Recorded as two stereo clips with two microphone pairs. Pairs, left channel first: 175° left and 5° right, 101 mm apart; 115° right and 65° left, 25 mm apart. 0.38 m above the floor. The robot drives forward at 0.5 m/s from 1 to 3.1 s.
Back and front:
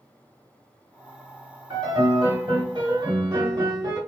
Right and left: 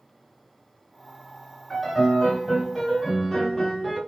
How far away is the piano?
About 2 m.